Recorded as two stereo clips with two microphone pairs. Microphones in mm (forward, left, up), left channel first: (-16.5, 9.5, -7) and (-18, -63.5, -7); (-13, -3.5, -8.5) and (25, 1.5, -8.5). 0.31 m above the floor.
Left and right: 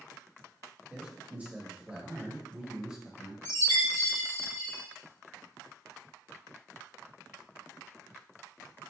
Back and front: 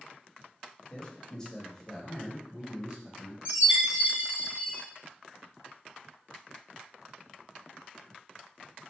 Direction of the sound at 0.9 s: 140° right.